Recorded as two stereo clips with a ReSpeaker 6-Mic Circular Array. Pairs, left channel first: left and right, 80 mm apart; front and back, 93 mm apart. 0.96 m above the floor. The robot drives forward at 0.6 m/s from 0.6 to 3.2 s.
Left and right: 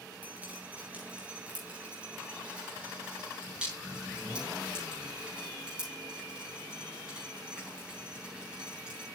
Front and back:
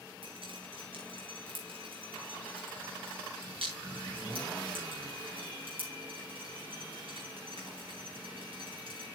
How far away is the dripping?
About 3 m.